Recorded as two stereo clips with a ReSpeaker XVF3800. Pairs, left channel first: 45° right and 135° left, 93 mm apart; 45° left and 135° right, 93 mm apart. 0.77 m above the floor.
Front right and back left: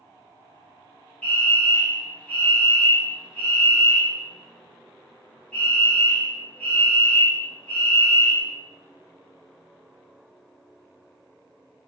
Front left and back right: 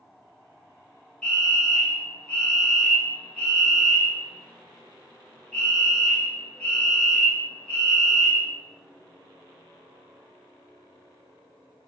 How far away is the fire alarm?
About 1.4 m.